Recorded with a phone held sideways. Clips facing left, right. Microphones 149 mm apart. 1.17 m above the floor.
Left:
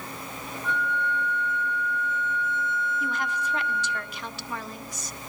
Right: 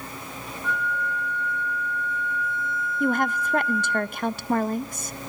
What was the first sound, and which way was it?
A flute, 25° left (ahead or behind).